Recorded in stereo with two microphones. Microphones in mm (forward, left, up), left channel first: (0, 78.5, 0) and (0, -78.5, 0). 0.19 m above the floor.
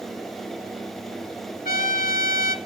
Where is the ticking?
I don't hear ticking.